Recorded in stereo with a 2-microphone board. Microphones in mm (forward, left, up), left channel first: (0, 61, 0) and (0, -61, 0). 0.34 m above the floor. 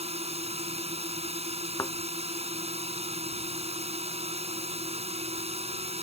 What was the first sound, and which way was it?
A drone, 60° right (ahead or behind).